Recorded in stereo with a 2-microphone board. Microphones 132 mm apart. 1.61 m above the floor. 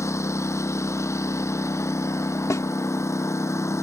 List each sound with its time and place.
0.0 s a lawn mower: 20° left (ahead or behind)
2.5 s a snare drum: 25° left (ahead or behind)